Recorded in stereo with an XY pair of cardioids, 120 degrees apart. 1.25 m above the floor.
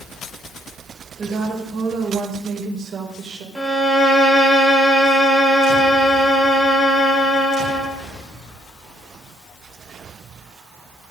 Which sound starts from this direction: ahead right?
A woman speaking, at 1.2 s.